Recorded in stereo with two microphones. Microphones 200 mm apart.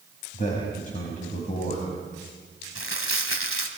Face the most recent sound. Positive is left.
turn(degrees=75)  # may be behind; listen again after turning